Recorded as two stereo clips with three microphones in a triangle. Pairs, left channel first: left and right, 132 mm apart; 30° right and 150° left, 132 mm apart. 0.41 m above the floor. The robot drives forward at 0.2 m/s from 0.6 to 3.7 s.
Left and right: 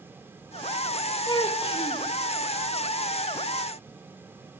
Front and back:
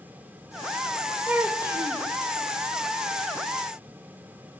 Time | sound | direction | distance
1.3 | a child speaking | 75° left | 0.5 m